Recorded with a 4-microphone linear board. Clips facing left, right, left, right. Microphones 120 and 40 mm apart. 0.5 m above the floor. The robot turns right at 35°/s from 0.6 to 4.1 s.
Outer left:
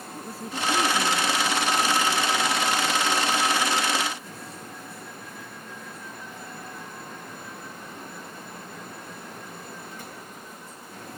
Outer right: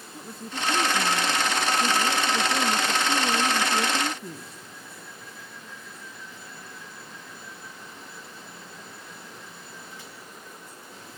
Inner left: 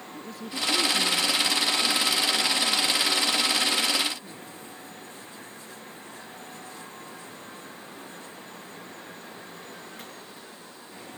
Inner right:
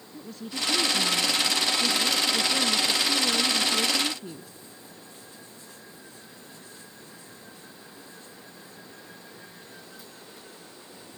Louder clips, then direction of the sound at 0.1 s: Outer left 2 dB, even; 175° left.